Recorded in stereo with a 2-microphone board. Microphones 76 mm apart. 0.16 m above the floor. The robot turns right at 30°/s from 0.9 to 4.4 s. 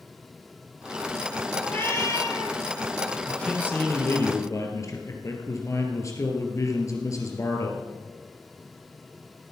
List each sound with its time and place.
1.6 s a cat meowing: 25° left, 2 m; by 2.6 s 55° left, 2 m
3.3 s a man speaking: 15° left, 3 m; by 7.9 s 45° left, 3 m